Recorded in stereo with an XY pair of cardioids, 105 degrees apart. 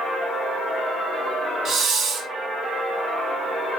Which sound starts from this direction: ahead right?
A hiss, at 1.6 s.